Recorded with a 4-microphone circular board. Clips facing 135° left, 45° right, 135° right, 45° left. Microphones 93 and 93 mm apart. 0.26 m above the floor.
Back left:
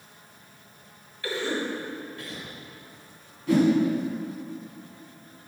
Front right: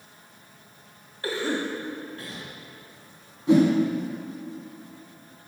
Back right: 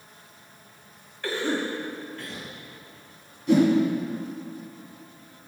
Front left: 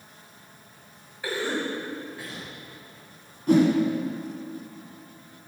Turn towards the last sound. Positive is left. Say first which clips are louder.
# front right 2 dB, even
turn(degrees=15)